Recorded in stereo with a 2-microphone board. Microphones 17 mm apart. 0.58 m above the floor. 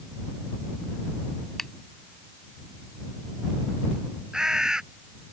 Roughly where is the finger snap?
Left.